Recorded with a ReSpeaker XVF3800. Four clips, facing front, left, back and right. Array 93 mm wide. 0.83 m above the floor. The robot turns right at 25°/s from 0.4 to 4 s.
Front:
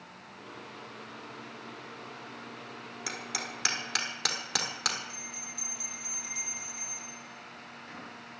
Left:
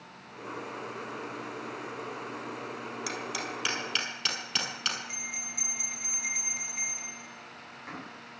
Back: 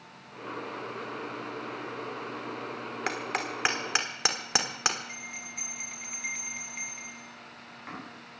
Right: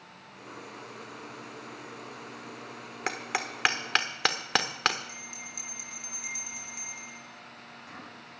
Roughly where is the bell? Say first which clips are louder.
Left 3 dB, back 3 dB; behind left.